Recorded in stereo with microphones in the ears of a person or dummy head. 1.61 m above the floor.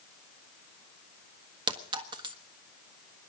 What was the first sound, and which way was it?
A clink, 20° right (ahead or behind).